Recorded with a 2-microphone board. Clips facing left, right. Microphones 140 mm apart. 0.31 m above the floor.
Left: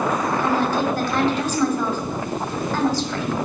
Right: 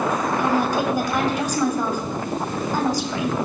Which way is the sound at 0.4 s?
15° right (ahead or behind).